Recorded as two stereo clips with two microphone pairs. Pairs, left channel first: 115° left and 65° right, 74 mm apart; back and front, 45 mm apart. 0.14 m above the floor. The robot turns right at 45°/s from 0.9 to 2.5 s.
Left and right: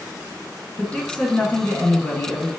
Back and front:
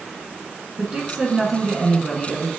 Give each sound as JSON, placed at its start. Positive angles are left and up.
{"t": 0.8, "sound": "a woman speaking", "azimuth_deg": 55, "distance_m": 1.2}